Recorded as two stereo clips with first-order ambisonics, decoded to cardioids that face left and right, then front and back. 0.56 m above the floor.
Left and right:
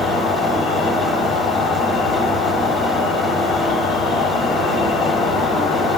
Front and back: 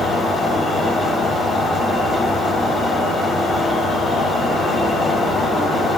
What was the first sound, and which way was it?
An insect, 85° left.